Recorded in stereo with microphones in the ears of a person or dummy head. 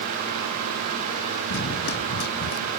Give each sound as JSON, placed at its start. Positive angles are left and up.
{"t": 1.5, "sound": "running footsteps", "side_deg": 65}